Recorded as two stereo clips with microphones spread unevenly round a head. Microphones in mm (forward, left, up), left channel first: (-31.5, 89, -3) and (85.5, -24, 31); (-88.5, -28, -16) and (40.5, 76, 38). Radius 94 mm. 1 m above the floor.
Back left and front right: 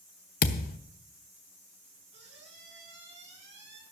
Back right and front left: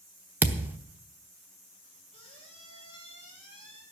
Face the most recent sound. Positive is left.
turn(degrees=-80)